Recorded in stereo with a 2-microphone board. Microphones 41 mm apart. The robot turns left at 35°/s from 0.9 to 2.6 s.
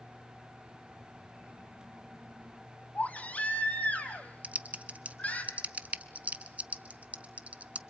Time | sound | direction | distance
3.0 | a baby crying | 35° left (ahead or behind) | 2 m
4.4 | typing on a keyboard | 35° right (ahead or behind) | 0.9 m